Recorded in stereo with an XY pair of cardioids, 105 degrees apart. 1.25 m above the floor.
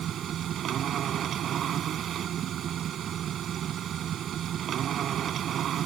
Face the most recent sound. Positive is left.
turn(degrees=-60)